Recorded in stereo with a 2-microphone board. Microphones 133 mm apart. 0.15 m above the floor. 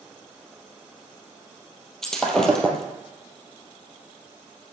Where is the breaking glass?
5° left (ahead or behind), 2.5 m.